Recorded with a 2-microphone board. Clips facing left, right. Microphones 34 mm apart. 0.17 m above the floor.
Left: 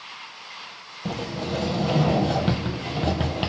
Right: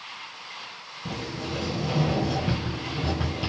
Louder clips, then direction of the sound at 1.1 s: Left 4 dB; 70° left (ahead or behind).